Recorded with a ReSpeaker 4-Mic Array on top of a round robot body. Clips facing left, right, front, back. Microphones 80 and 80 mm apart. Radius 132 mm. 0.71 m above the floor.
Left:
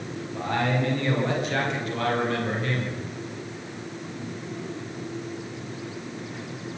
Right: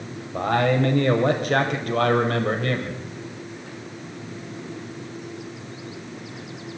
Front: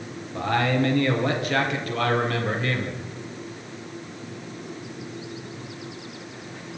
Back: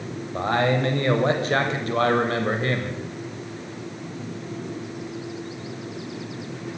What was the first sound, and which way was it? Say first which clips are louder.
A man speaking: right 5 dB, back 1 dB; 120° right.